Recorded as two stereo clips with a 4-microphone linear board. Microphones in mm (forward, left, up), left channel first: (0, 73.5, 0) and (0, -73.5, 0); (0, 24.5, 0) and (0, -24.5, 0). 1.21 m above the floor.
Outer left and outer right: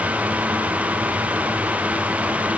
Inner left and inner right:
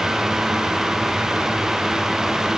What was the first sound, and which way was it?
Only background noise.